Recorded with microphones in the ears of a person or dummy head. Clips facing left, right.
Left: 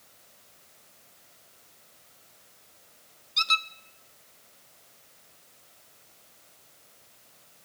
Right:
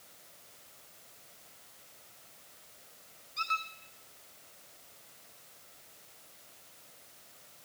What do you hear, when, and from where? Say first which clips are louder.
3.4 s a squeak: left 4 dB; 50° left (ahead or behind), 0.6 m